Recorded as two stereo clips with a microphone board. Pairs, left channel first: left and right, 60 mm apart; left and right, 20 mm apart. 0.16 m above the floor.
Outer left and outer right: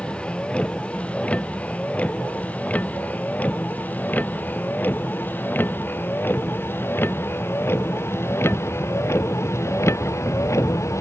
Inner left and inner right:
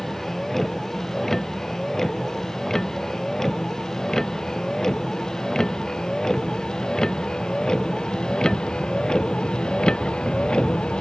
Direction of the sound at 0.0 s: 20° left (ahead or behind).